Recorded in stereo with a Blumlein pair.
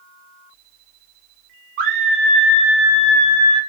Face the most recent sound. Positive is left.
turn(degrees=45)